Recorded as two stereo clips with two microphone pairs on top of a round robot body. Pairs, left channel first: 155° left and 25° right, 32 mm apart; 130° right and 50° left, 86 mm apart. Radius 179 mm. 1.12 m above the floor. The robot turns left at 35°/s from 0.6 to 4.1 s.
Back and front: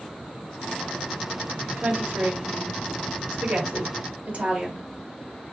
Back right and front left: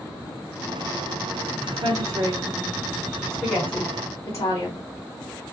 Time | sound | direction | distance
1.8 | a woman speaking | 10° left | 0.9 m